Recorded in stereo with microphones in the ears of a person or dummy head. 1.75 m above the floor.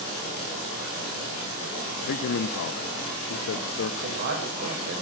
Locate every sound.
2.0 s a man speaking: 50° left (ahead or behind), 0.5 m
4.0 s a man speaking: 60° right (ahead or behind), 7 m